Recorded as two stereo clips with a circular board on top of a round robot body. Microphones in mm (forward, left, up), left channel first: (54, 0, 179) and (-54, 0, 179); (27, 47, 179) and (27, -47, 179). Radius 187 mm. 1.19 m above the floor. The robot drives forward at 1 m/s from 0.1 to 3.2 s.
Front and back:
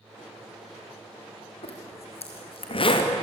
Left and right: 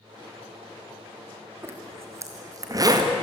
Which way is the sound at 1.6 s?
25° right.